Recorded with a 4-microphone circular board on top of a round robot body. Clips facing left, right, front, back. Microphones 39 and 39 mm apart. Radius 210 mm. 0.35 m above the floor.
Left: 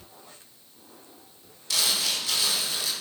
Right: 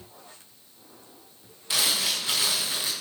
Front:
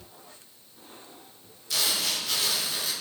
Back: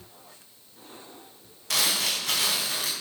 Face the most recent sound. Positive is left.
turn(degrees=-155)